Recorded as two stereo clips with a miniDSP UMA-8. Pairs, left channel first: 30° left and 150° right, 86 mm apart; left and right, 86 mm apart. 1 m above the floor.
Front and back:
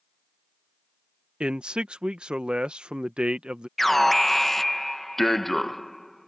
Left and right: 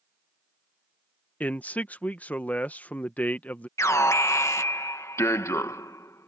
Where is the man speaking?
145° left.